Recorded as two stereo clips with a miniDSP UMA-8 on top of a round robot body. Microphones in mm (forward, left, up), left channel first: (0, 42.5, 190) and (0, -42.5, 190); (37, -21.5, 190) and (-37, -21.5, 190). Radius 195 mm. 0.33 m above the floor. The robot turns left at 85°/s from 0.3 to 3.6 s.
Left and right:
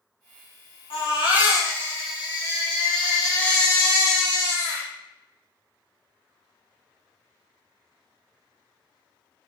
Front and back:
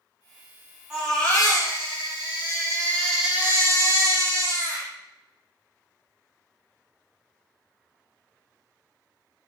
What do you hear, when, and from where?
0.9 s a baby crying: 100° left, 5.5 m; by 4.9 s 130° right, 5.5 m